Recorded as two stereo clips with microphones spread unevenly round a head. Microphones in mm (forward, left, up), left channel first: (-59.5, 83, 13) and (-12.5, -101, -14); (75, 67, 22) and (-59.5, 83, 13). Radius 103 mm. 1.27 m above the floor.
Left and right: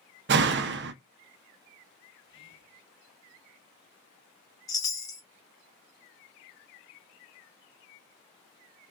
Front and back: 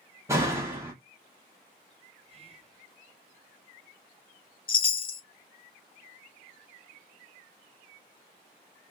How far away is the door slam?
About 0.5 m.